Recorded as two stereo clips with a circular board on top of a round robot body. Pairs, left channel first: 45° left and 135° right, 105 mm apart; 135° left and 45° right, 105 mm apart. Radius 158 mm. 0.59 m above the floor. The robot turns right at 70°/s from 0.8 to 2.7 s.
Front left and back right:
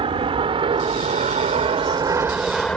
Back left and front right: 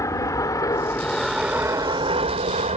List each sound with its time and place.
0.0 s an aircraft: 165° right; by 2.8 s 40° right